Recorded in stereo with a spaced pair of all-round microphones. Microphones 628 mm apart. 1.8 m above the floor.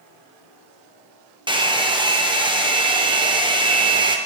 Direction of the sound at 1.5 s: 10° right (ahead or behind).